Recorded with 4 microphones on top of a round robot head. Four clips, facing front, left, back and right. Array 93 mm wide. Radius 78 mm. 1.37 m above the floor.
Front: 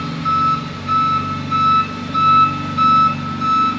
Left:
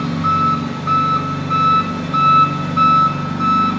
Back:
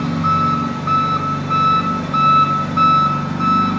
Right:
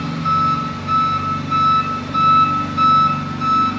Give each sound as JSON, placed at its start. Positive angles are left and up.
{"t": 0.0, "sound": "an engine running", "azimuth_deg": 140, "distance_m": 0.8}